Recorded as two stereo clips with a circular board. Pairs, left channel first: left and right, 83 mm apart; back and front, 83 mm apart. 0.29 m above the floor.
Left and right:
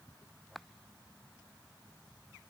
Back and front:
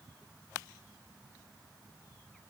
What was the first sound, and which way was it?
Only background noise.